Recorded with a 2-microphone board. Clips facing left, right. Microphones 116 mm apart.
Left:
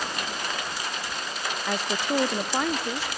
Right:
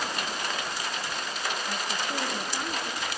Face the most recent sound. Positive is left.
turn(degrees=85)